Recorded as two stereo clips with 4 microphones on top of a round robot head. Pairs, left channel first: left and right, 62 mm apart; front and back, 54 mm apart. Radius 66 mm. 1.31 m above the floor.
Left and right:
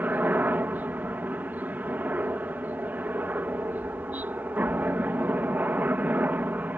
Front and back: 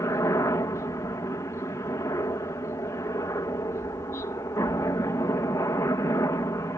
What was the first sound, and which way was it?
A helicopter, 30° right.